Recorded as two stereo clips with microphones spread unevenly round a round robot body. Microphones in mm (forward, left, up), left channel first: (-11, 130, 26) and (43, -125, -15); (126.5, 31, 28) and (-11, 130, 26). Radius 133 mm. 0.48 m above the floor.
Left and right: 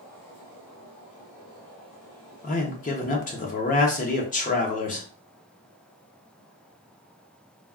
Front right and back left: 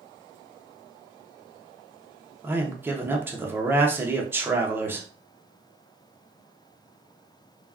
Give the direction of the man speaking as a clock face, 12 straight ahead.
9 o'clock.